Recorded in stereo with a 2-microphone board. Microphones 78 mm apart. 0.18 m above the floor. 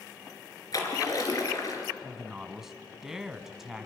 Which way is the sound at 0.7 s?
50° left (ahead or behind).